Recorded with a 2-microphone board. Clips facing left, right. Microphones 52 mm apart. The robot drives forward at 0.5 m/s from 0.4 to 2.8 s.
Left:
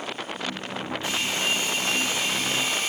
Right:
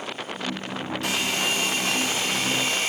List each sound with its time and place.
1.0 s a hair dryer: 75° right (ahead or behind), 2 m; by 2.9 s 60° right (ahead or behind), 2.5 m